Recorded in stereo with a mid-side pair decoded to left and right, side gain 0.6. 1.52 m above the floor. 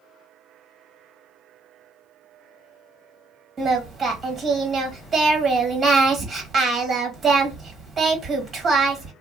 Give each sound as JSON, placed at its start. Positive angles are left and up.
{"t": 3.6, "sound": "singing", "azimuth_deg": -30, "distance_m": 1.7}